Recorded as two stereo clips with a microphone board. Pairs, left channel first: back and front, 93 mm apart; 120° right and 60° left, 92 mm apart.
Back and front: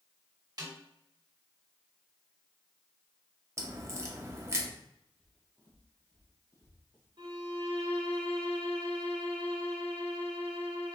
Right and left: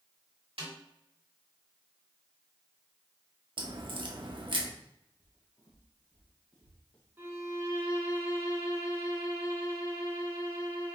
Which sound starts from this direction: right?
Footsteps, at 5.2 s.